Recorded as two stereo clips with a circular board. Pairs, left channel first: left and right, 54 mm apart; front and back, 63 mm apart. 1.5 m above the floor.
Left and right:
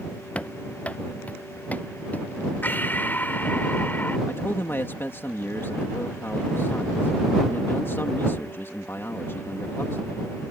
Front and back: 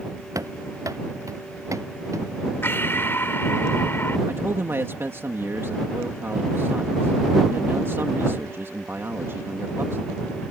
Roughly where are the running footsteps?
Behind left.